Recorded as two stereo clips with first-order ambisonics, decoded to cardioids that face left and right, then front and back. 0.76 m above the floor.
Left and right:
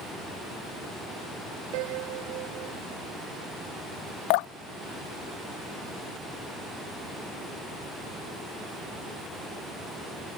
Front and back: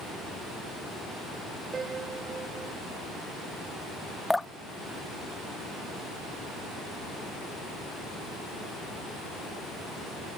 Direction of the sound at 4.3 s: 85° left.